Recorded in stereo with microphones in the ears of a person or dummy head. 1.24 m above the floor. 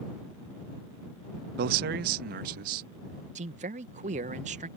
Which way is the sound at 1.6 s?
55° right (ahead or behind).